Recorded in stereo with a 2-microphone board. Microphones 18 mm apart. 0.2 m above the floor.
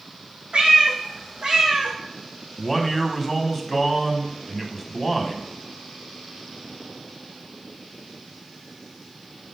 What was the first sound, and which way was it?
A cat meowing, 75° right (ahead or behind).